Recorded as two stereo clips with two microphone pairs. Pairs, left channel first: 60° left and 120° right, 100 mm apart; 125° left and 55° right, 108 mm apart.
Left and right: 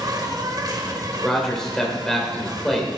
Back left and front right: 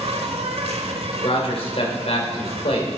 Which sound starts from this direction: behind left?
A man speaking, at 1.2 s.